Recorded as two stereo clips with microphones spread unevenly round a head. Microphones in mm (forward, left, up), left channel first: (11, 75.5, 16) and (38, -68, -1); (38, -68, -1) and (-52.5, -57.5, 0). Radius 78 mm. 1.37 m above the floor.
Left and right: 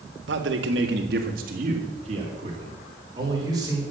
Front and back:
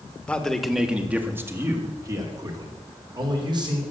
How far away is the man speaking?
About 1.8 m.